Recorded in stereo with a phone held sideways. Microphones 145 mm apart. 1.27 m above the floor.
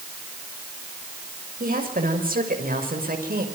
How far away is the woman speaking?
About 6 m.